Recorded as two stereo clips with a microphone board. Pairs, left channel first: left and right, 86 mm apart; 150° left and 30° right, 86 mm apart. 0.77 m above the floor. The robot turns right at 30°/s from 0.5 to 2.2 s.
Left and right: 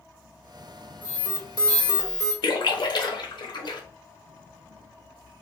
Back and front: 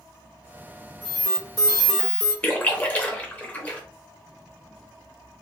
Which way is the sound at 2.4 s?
80° left.